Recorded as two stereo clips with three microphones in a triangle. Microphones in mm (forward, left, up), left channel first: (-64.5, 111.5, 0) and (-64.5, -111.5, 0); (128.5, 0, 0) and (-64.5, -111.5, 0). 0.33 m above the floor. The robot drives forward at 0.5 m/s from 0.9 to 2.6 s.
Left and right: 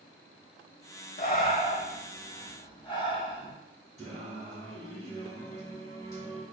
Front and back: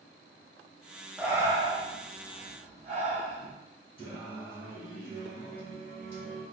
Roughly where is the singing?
Ahead right.